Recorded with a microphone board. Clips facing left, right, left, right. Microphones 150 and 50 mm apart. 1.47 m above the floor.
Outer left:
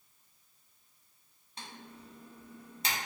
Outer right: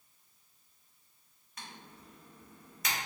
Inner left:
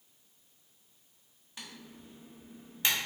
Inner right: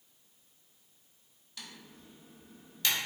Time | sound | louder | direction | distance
1.6 | typing on a keyboard | outer left 2 dB, inner left 2 dB | 30° left (ahead or behind) | 0.7 m